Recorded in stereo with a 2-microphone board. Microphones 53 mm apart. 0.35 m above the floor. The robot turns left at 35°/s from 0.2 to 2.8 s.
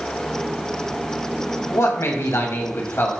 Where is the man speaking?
95° left, 1.8 m; by 3.1 s 55° left, 1.8 m.